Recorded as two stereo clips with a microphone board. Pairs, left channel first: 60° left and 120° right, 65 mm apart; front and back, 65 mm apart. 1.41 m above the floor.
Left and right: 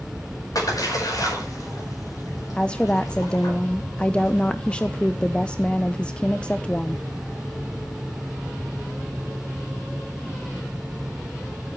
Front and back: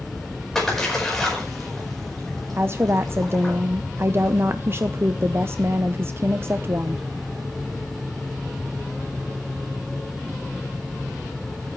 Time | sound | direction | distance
0.6 | a splash | 85° left | 4.5 m
2.6 | a woman speaking | 135° left | 0.5 m